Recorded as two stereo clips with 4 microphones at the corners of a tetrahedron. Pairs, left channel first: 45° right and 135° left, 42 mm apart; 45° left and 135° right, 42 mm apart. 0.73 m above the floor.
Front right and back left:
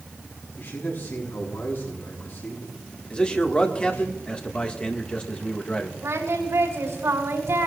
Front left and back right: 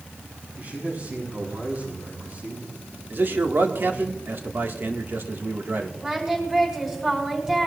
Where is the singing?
150° left, 5.5 m.